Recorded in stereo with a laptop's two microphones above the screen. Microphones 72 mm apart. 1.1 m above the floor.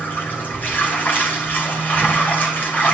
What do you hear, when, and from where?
0.0 s running water: 25° left (ahead or behind), 2.5 m